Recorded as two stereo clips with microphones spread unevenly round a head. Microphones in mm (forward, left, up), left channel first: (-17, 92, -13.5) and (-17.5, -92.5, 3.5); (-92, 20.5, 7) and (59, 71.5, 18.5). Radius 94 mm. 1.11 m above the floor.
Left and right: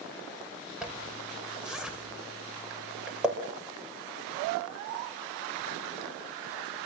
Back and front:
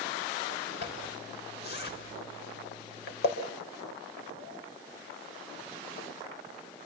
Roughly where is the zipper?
Behind.